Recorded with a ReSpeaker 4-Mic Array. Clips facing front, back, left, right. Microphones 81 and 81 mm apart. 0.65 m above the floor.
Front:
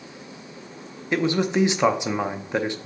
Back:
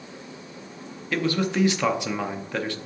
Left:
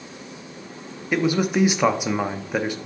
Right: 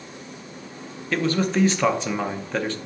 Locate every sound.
1.1 s a man speaking: 35° left, 0.6 m